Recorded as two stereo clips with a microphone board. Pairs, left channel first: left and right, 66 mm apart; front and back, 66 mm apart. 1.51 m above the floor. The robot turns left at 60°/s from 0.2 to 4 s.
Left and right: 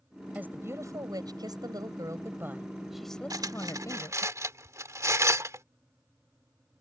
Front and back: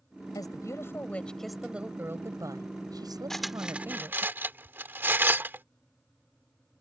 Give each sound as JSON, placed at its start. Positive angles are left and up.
{"t": 0.3, "sound": "a woman speaking", "azimuth_deg": -20}
{"t": 3.3, "sound": "cutlery clinking", "azimuth_deg": -85}